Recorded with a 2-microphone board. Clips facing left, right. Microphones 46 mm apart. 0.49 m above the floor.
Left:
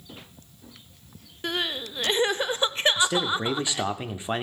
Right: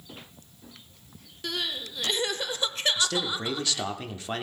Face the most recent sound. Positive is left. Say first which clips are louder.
# left 4 dB
turn(degrees=20)  # may be behind; listen again after turning